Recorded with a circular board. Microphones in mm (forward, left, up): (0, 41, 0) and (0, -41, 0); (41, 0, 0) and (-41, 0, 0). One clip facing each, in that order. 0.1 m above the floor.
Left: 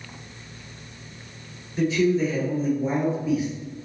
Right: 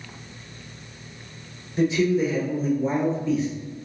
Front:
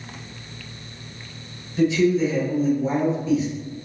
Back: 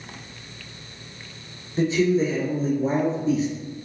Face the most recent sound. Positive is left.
turn(degrees=155)